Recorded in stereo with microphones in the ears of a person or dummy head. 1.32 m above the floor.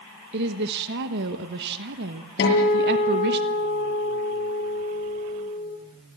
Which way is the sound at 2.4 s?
65° left (ahead or behind).